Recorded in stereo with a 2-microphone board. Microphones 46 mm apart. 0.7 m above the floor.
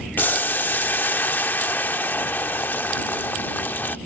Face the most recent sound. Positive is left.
turn(degrees=45)  # may be behind; listen again after turning